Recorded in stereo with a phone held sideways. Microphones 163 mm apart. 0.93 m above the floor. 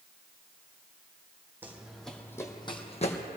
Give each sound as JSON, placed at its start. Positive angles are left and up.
{"t": 1.6, "sound": "running footsteps", "side_deg": -10, "distance_m": 1.8}